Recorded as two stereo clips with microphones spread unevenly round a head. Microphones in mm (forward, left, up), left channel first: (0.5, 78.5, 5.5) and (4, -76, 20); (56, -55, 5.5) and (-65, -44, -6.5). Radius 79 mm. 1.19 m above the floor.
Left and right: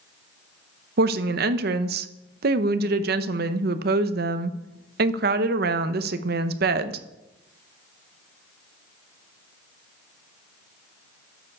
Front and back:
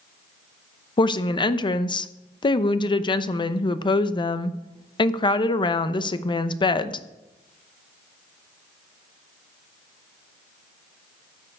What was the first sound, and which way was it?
A woman speaking, 60° right.